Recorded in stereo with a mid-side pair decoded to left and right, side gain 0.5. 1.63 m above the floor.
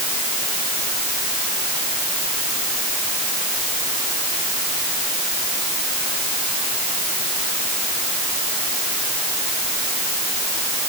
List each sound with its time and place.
Only background noise.